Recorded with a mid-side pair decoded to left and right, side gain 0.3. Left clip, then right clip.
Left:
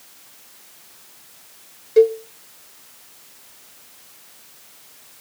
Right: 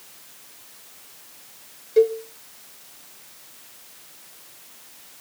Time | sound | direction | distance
2.0 | a cowbell | 40° left | 0.6 m